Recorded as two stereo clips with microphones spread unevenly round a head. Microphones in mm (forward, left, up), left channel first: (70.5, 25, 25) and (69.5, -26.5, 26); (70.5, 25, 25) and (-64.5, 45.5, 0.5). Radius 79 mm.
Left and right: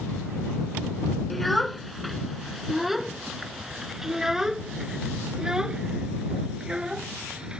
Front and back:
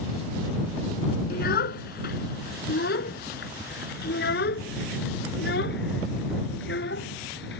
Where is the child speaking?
Straight ahead; by 7.6 s 20° right.